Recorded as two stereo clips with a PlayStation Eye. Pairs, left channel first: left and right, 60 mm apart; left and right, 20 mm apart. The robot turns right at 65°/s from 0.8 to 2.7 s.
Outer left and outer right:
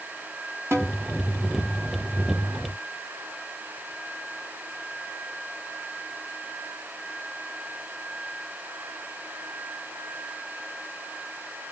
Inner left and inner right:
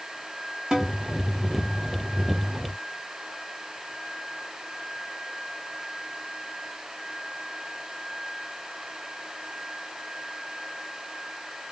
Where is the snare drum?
45° right (ahead or behind), 1.0 m.